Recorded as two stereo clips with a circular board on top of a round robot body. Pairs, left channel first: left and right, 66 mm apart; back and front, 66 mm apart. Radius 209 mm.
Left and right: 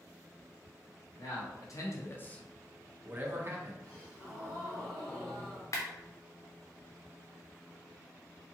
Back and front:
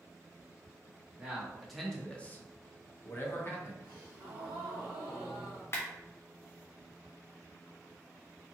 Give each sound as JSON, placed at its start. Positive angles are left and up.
{"t": 1.2, "sound": "a man speaking", "azimuth_deg": 80, "distance_m": 1.2}
{"t": 3.8, "sound": "a gasp", "azimuth_deg": -5, "distance_m": 0.7}
{"t": 5.7, "sound": "a clap", "azimuth_deg": 130, "distance_m": 0.6}